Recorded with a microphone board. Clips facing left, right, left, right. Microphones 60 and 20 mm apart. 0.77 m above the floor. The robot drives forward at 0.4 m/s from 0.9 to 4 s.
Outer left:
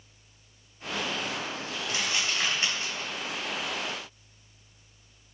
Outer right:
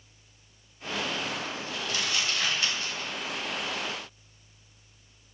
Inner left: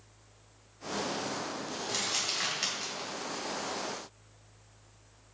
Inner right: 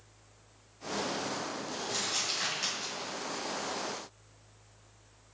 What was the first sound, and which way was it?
Crumpling, 25° left (ahead or behind).